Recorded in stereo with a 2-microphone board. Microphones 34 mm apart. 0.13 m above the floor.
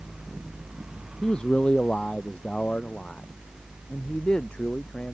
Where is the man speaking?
25° left (ahead or behind); by 5.2 s 30° left (ahead or behind).